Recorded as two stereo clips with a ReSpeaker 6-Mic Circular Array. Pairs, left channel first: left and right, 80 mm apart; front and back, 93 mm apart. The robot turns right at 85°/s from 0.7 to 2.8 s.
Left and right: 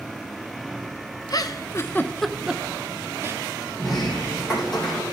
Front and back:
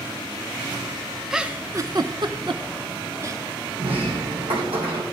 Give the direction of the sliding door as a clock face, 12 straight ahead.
6 o'clock.